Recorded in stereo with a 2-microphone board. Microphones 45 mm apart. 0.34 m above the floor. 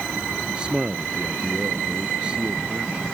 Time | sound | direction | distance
0.5 | a man speaking | 20° right (ahead or behind) | ?